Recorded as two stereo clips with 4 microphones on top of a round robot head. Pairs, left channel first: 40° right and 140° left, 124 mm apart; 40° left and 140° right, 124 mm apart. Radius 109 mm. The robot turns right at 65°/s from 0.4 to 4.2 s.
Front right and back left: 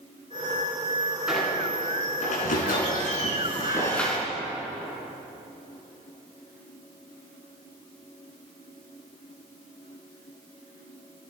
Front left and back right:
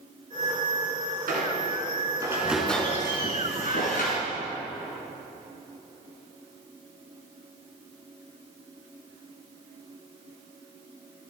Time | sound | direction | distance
1.3 | a squeak | 135° right | 4.5 m